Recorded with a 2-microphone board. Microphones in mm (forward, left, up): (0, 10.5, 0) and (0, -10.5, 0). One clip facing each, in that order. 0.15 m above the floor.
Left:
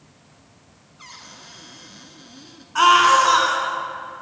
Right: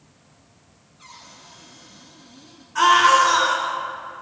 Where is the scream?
35° left (ahead or behind), 1.7 m.